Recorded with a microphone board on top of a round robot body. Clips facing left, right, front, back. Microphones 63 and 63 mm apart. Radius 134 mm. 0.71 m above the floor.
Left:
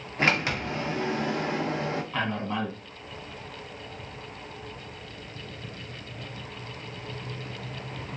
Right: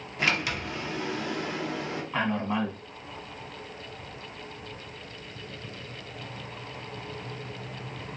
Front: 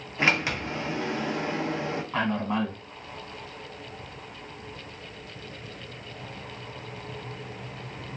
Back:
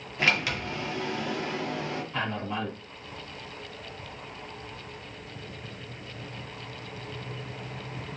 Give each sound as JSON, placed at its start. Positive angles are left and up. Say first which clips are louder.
{"t": 0.2, "sound": "a sliding door", "louder": "left 3 dB, front 2 dB", "azimuth_deg": 55, "distance_m": 0.7}
{"t": 2.1, "sound": "a man speaking", "louder": "right 6 dB, front 6 dB", "azimuth_deg": -15, "distance_m": 1.4}